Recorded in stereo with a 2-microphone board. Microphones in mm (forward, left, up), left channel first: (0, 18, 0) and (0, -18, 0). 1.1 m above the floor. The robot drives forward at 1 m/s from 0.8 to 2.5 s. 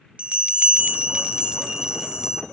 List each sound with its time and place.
0.2 s a bell: 35° right (ahead or behind), 1.1 m; by 2.4 s 15° right (ahead or behind), 2 m